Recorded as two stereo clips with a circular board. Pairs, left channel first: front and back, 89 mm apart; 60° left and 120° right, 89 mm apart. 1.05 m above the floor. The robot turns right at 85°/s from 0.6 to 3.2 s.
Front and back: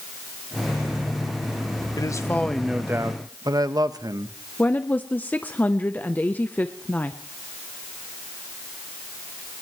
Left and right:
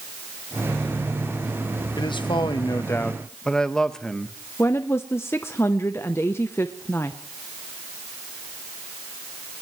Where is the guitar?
I don't hear a guitar.